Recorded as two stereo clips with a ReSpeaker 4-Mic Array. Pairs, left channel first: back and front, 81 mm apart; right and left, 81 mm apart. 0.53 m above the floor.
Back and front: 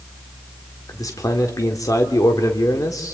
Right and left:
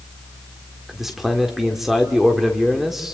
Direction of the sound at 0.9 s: 175° left.